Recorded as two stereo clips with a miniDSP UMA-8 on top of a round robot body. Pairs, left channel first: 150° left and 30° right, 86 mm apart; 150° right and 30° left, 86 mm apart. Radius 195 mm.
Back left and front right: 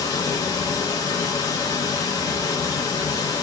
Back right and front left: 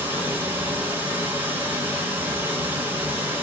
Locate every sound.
0.0 s running water: 100° left, 0.7 m